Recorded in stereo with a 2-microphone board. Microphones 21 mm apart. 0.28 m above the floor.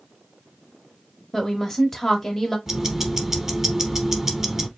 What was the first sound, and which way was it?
A woman speaking, 10° left (ahead or behind).